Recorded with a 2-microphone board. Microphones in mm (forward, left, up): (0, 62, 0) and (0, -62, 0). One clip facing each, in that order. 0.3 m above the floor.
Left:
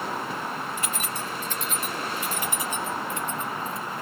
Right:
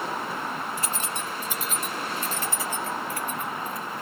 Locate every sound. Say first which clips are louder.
0.8 s keys jangling: even; 40° right (ahead or behind); by 4.0 s 30° left (ahead or behind)